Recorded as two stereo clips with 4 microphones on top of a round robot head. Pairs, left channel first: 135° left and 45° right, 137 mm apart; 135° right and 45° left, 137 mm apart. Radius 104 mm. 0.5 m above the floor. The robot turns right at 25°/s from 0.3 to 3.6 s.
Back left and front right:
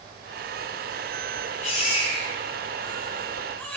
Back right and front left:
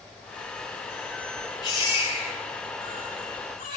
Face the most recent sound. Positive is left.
turn(degrees=-145)